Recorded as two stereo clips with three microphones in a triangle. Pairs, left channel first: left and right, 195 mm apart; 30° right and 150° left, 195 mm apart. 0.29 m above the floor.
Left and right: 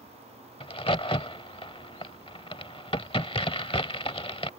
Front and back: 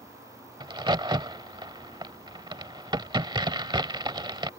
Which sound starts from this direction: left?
A crack, at 0.6 s.